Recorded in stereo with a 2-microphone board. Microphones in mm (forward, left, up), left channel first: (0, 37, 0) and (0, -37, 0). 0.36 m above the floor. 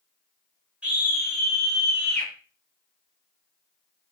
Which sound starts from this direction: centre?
A scream, at 0.8 s.